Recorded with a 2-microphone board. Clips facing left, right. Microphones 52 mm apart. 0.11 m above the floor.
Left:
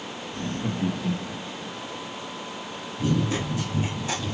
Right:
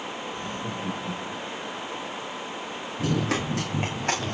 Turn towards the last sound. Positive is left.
turn(degrees=-45)  # may be behind; listen again after turning